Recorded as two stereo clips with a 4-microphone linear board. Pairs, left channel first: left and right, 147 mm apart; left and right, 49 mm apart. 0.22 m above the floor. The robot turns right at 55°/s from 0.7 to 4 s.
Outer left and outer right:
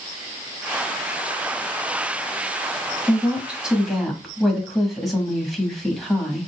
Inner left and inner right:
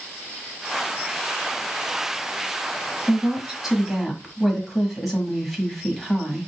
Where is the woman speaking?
15° right (ahead or behind), 1.0 m; by 6.5 s centre (ahead or behind), 1.0 m.